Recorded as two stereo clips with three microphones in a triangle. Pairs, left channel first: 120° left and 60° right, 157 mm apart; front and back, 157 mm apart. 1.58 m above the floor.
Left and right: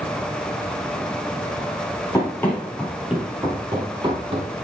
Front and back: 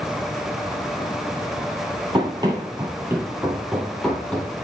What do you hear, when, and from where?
2.1 s running footsteps: 165° left, 1.8 m; by 4.5 s 75° right, 2 m